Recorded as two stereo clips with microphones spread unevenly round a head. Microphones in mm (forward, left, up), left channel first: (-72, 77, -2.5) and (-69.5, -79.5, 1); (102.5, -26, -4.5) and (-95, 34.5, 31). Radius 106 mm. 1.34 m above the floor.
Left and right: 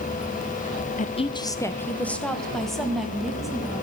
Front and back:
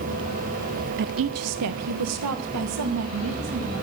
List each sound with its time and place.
1.0 s a woman speaking: 120° left, 0.6 m; by 3.8 s 175° right, 3.5 m